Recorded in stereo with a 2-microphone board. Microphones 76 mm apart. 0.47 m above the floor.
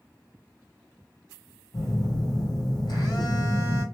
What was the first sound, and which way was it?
A phone buzzing, 70° left (ahead or behind).